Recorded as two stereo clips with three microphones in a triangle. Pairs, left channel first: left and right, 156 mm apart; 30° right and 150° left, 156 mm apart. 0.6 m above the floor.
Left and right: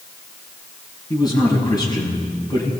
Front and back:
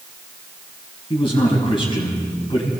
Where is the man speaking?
25° left, 6.5 m.